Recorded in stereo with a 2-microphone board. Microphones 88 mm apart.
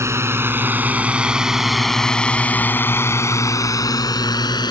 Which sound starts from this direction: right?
A drone, at 0.0 s.